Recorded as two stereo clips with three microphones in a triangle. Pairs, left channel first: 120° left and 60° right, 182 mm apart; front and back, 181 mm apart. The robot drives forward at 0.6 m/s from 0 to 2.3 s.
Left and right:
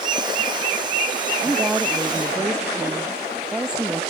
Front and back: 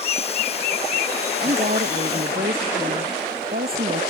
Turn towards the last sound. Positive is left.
turn(degrees=-145)